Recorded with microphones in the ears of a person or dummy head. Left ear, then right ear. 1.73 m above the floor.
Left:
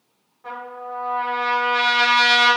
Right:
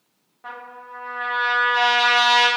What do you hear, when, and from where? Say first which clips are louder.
0.4 s a trumpet: left 4 dB; 25° right (ahead or behind), 0.7 m